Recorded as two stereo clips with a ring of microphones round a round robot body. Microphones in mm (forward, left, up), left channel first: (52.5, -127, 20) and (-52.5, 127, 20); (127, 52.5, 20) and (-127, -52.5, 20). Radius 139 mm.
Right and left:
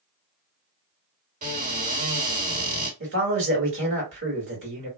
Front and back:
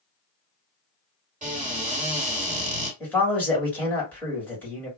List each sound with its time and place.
1.4 s a cupboard door: 150° left, 2 m
3.0 s a man speaking: 105° left, 1.7 m